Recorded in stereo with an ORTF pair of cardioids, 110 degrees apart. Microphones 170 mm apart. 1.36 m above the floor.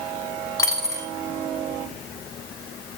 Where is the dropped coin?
20° left, 3.5 m.